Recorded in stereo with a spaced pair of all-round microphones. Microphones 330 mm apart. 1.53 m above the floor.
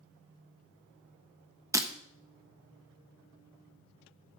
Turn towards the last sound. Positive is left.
turn(degrees=-10)  # may be behind; listen again after turning